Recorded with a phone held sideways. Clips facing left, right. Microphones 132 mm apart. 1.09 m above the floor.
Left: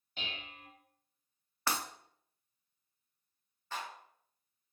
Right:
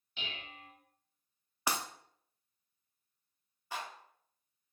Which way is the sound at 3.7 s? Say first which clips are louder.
Even; 10° right (ahead or behind).